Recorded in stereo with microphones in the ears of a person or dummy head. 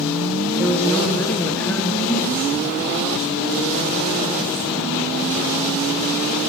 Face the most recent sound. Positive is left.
turn(degrees=10)  # may be behind; listen again after turning